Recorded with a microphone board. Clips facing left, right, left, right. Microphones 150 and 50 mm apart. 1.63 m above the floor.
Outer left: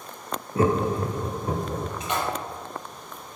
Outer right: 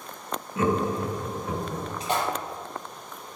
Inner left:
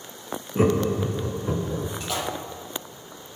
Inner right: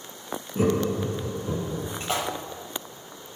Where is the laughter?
35° left (ahead or behind), 0.5 m.